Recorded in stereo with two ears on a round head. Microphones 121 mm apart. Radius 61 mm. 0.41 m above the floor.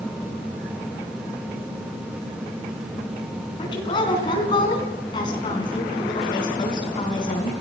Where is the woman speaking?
35° left (ahead or behind), 5 m.